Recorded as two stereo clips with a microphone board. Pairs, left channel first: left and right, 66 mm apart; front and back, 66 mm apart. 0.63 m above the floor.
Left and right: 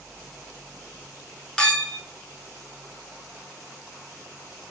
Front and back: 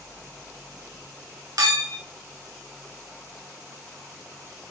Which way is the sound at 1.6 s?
165° left.